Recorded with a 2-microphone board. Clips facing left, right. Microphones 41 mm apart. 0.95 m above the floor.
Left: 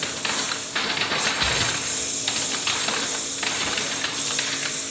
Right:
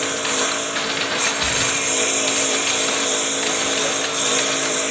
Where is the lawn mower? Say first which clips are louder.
Right 6 dB; 55° right (ahead or behind).